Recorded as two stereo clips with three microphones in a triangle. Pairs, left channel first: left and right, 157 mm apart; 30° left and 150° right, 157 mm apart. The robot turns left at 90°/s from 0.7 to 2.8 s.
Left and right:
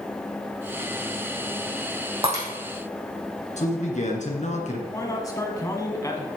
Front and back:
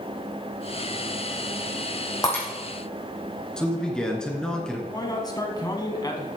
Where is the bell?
No bell in this recording.